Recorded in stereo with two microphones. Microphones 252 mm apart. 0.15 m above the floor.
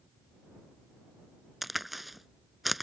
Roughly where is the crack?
Centre.